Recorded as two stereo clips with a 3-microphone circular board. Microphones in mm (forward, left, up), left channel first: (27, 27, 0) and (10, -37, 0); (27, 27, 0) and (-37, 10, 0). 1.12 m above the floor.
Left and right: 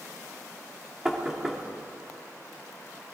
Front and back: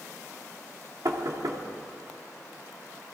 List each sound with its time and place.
1.1 s knocking: 175° left, 2 m